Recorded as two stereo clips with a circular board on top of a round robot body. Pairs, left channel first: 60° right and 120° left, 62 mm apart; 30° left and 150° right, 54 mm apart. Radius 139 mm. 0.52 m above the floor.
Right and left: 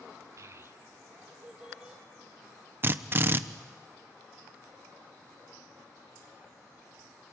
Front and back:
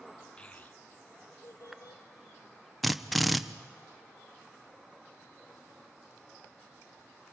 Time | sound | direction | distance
0.4 | a child speaking | 95° left | 1.3 m
2.8 | a drill | 120° left | 1.0 m